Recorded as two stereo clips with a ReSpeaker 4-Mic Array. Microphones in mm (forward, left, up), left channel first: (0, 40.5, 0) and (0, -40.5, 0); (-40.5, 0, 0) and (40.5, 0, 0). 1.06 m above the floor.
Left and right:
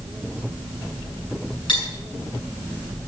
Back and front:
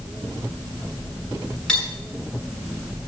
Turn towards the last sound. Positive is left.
turn(degrees=105)